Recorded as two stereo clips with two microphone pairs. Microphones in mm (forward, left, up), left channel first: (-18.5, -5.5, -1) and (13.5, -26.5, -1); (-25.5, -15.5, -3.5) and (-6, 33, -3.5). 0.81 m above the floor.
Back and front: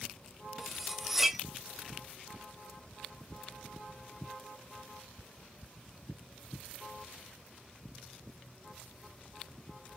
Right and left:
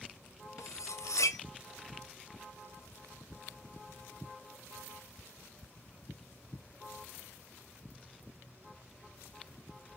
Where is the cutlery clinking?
120° right, 0.5 m.